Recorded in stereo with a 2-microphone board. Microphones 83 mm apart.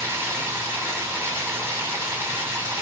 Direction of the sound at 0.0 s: 30° right (ahead or behind).